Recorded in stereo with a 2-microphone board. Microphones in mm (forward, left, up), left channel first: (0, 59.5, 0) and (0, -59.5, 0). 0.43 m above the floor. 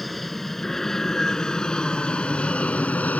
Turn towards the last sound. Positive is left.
turn(degrees=15)  # may be behind; listen again after turning